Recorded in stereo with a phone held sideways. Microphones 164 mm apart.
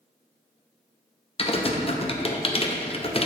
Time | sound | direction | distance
1.4 | typing on a keyboard | 35° left (ahead or behind) | 0.6 m